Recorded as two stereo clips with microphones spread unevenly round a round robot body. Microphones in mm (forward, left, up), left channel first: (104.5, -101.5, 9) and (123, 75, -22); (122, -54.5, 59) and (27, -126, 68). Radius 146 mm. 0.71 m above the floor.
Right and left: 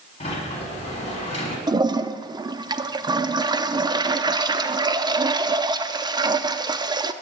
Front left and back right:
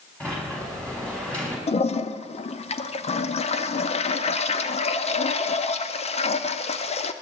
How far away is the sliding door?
About 6 m.